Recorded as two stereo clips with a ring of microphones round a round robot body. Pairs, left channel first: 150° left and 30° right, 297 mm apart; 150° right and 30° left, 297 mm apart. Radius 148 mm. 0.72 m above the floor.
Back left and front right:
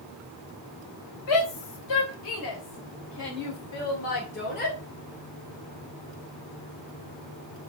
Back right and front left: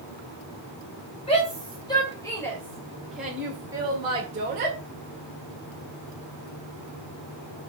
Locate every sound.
1.3 s a shout: 140° left, 3.5 m; by 4.8 s 90° left, 2 m